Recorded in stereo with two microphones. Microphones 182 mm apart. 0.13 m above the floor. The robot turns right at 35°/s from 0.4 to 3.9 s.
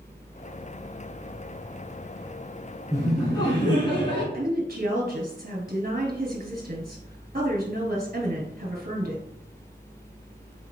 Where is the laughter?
15° left (ahead or behind), 1.1 m; by 4.2 s 25° left (ahead or behind), 1.1 m.